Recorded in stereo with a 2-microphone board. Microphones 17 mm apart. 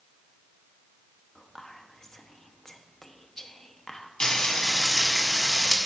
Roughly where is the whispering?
Left.